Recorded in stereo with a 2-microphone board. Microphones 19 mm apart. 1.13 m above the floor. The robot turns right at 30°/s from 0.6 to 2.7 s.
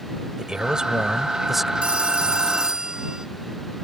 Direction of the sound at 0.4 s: 45° right.